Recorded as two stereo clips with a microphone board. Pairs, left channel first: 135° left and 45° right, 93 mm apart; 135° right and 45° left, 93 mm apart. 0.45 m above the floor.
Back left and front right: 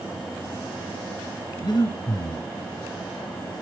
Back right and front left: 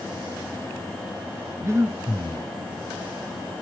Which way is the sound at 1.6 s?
100° left.